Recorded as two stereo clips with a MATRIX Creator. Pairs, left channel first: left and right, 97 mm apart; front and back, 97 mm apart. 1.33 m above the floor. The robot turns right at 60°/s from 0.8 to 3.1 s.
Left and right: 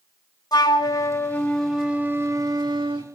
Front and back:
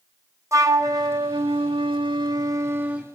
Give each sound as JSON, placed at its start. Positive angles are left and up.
{"t": 0.5, "sound": "a flute", "azimuth_deg": 125, "distance_m": 1.5}